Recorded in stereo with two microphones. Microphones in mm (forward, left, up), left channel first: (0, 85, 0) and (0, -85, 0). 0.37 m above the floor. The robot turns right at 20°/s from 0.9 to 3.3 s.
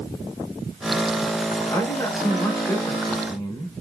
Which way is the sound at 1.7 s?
20° left (ahead or behind).